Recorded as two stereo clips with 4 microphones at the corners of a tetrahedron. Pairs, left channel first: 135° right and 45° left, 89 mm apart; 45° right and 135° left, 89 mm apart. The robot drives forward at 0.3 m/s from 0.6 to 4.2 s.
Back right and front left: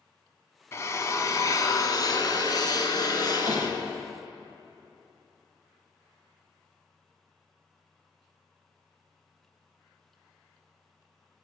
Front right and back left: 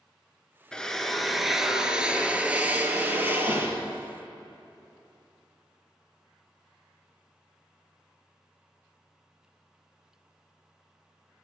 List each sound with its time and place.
0.7 s a drill: 120° right, 0.7 m; by 4.1 s 165° right, 1.4 m
3.5 s hammering: 170° right, 4 m